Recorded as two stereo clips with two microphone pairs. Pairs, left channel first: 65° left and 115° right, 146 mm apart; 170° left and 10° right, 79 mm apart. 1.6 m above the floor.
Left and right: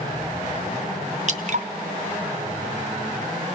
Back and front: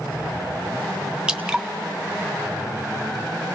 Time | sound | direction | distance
1.3 | dripping | 90° right | 0.7 m